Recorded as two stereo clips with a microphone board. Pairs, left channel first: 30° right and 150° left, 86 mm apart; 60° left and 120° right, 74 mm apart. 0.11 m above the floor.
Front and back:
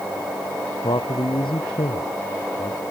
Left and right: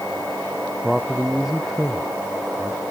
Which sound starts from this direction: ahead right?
A man speaking, at 0.8 s.